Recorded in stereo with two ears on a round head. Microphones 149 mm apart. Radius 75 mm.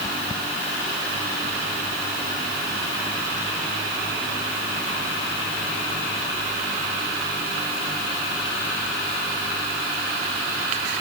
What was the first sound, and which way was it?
Only background noise.